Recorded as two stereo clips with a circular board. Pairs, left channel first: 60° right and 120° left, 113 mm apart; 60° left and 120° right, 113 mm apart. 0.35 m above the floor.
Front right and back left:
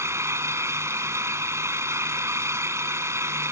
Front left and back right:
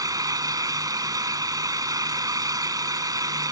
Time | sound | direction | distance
0.0 | an engine running | 175° right | ?